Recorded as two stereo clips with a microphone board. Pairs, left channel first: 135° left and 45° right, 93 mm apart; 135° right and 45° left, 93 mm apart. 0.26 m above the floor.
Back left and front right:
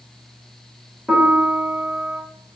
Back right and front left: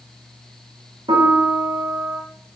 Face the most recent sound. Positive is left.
turn(degrees=40)